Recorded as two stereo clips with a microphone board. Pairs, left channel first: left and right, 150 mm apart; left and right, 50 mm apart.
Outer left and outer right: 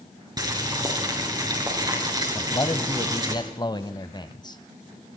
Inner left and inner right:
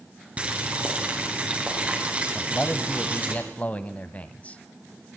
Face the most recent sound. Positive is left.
turn(degrees=30)  # may be behind; listen again after turning